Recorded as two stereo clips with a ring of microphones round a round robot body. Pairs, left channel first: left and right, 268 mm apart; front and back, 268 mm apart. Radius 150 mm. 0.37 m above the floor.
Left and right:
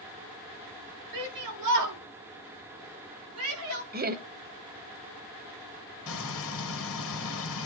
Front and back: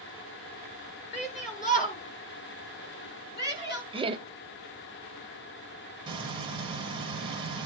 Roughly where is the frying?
Left.